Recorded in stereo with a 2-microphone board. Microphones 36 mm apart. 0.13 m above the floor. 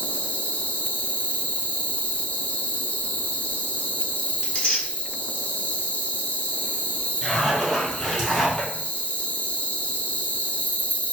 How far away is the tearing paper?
About 1.5 m.